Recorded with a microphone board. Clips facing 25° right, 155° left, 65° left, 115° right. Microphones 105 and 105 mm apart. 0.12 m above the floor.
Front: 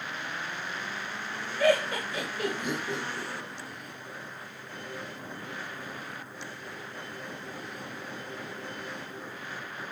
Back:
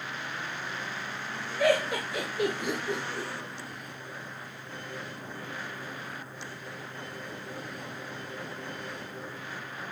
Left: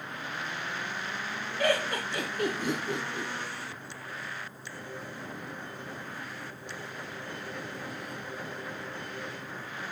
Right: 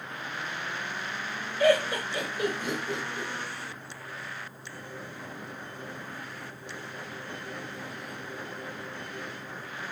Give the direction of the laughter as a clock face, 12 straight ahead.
10 o'clock.